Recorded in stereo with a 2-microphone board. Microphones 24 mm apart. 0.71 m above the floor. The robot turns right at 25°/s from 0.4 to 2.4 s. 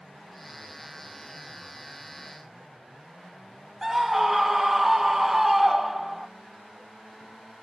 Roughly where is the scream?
Centre.